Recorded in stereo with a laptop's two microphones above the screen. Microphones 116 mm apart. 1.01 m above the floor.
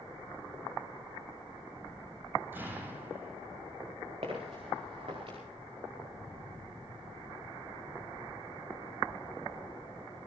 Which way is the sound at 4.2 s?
60° right (ahead or behind).